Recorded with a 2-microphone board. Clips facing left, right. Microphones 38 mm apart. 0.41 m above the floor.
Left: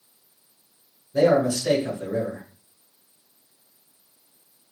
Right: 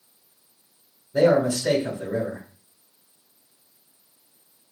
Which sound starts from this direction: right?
A man speaking, at 1.1 s.